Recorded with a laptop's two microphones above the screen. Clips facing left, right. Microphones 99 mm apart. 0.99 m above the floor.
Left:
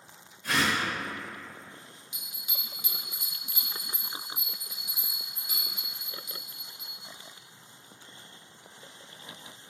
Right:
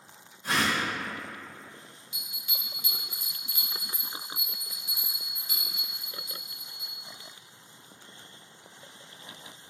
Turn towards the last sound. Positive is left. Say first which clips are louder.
# right 3 dB
turn(degrees=20)  # may be behind; listen again after turning